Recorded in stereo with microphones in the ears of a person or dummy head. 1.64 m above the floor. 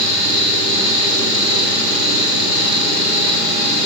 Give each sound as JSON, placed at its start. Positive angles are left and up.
{"t": 0.0, "sound": "a fan", "side_deg": -35, "distance_m": 0.9}